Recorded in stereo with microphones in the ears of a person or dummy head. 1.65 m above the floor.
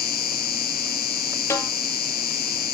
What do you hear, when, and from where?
0.0 s an insect: 50° left (ahead or behind), 1.0 m
1.5 s a snare drum: 15° left (ahead or behind), 2 m